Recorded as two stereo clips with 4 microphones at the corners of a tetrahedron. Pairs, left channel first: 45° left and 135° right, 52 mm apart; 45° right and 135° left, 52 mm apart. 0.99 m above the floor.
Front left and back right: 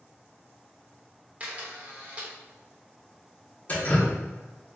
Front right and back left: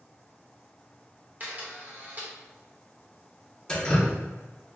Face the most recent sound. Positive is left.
turn(degrees=15)